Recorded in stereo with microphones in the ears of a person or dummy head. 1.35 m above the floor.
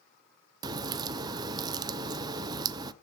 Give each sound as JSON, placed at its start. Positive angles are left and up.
{"t": 0.6, "sound": "a crack", "side_deg": -20, "distance_m": 0.5}